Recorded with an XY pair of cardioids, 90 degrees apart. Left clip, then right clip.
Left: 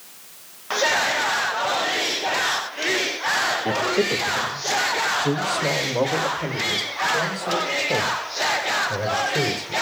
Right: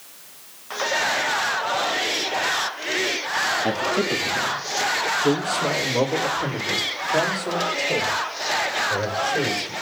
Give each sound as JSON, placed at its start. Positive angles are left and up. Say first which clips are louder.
{"t": 3.6, "sound": "a man speaking", "louder": "left 1 dB", "azimuth_deg": -55, "distance_m": 2.0}